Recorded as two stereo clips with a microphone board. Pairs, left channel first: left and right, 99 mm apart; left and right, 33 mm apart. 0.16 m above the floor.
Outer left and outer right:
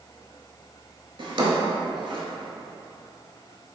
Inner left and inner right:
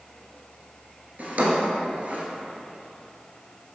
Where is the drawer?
60° right (ahead or behind), 0.8 m.